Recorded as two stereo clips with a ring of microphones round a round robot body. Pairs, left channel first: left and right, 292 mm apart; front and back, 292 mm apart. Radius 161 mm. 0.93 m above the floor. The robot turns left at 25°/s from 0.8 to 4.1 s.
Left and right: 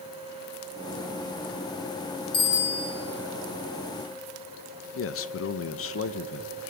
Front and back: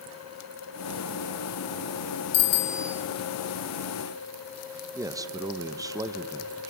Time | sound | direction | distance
2.3 | a bicycle bell | 15° left | 2.5 m
5.0 | a man speaking | 105° left | 1.0 m